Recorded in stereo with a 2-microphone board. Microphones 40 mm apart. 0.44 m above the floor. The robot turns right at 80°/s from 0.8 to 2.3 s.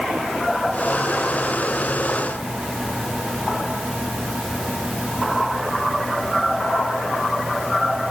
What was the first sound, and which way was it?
Only background noise.